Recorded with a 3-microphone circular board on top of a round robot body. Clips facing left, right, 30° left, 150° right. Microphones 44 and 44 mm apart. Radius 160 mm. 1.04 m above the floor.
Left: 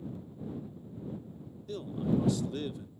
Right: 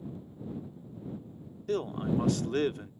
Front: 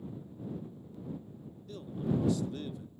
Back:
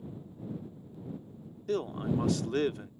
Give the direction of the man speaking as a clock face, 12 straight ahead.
4 o'clock.